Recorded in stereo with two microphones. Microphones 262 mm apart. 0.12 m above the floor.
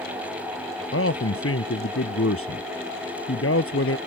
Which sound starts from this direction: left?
A man speaking, at 0.9 s.